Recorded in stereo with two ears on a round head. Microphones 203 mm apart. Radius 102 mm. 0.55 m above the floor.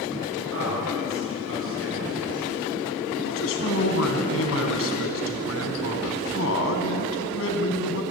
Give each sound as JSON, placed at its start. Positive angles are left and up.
{"t": 0.5, "sound": "a man speaking", "side_deg": -65, "distance_m": 9.0}
{"t": 3.2, "sound": "a man speaking", "side_deg": 70, "distance_m": 4.5}